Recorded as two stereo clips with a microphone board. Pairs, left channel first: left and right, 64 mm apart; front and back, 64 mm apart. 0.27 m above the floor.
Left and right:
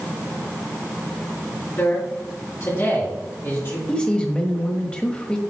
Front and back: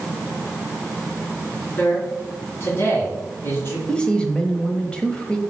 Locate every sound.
1.8 s a man speaking: 45° left, 4 m
3.9 s a man speaking: 45° left, 1.1 m